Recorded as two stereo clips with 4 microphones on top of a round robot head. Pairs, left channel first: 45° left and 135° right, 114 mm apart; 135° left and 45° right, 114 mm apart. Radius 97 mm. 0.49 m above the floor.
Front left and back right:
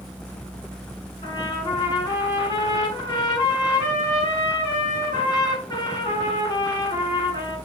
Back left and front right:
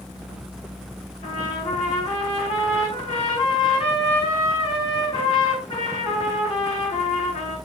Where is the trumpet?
100° left, 6 m.